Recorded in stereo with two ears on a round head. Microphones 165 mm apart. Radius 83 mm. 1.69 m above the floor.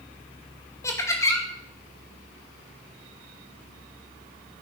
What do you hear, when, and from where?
0.8 s laughter: 15° left (ahead or behind), 2 m